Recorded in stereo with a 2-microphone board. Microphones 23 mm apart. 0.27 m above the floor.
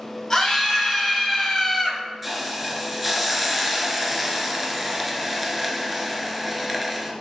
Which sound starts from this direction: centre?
A hiss, at 2.2 s.